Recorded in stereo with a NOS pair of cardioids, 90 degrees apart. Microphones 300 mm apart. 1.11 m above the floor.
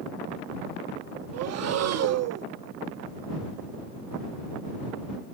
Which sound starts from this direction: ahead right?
Breathing, at 1.3 s.